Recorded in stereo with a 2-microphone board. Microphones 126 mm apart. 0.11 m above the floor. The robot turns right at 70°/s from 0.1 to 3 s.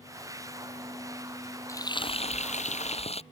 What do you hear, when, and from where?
1.7 s frying: 25° left; by 3.2 s 115° left